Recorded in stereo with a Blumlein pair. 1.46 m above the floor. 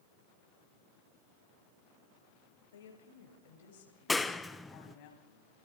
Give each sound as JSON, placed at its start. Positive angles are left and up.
{"t": 2.7, "sound": "a woman speaking", "azimuth_deg": 65, "distance_m": 6.0}
{"t": 4.1, "sound": "a clap", "azimuth_deg": 5, "distance_m": 1.1}